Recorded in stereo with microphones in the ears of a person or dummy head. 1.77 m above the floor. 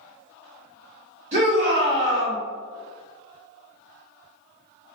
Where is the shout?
35° right (ahead or behind), 1.0 m.